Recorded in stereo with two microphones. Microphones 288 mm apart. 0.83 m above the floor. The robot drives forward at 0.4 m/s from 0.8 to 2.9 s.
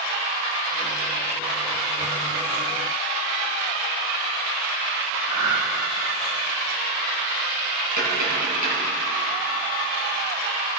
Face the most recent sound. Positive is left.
turn(degrees=-85)